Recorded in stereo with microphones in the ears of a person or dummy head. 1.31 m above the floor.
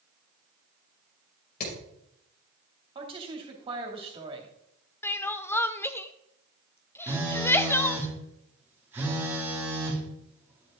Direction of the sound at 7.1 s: 10° right (ahead or behind).